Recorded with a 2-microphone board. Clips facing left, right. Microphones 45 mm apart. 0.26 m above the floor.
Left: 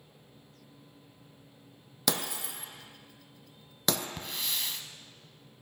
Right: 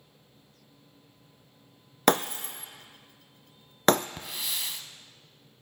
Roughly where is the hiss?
Centre.